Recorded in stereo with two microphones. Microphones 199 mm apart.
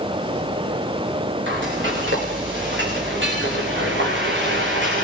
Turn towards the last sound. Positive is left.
turn(degrees=-70)  # may be behind; listen again after turning